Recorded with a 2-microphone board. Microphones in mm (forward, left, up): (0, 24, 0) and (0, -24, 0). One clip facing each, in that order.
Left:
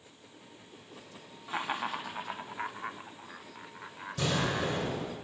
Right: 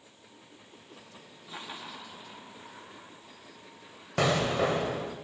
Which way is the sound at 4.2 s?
85° right.